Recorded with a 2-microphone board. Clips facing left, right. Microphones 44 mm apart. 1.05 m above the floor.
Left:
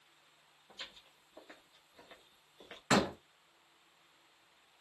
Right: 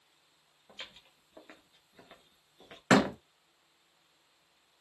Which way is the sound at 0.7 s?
50° right (ahead or behind).